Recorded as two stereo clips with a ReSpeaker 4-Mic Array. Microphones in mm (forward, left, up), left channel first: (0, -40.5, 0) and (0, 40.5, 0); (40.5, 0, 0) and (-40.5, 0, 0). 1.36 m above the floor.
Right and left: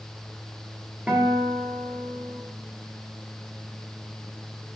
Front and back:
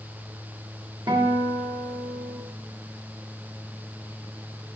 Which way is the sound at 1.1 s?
160° left.